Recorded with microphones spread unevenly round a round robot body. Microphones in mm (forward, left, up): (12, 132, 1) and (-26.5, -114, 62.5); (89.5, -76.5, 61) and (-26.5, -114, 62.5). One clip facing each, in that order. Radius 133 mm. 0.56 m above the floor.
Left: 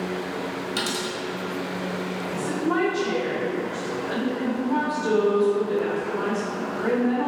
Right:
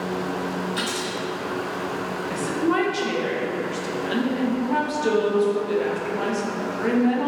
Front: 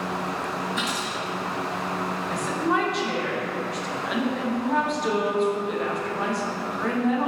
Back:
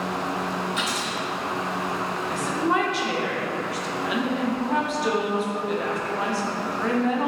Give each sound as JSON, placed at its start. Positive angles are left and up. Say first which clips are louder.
{"t": 0.8, "sound": "a dropped coin", "louder": "even, back 1 dB", "azimuth_deg": 140, "distance_m": 1.3}
{"t": 2.3, "sound": "a woman speaking", "louder": "right 2 dB, back 1 dB", "azimuth_deg": -75, "distance_m": 0.7}